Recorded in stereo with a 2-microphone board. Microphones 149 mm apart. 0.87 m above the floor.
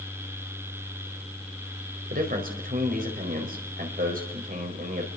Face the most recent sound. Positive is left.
turn(degrees=-70)  # may be behind; listen again after turning